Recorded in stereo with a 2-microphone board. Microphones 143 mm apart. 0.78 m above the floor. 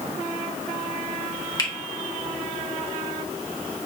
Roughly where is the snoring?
I don't hear snoring.